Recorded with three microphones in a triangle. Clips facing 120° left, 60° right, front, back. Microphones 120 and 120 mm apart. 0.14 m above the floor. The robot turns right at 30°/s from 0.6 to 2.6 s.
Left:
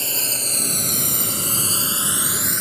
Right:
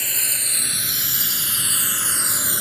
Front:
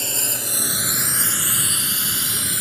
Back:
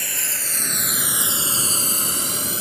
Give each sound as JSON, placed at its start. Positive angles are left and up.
{"t": 0.0, "sound": "a drone", "azimuth_deg": 60}